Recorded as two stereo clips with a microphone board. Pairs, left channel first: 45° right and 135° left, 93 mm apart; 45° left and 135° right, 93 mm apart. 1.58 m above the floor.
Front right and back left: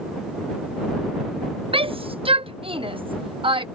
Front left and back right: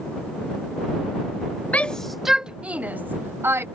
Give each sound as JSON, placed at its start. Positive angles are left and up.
{"t": 1.7, "sound": "a shout", "azimuth_deg": 120}